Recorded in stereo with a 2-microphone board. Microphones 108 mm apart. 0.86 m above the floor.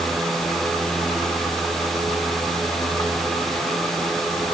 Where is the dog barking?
I don't hear a dog barking.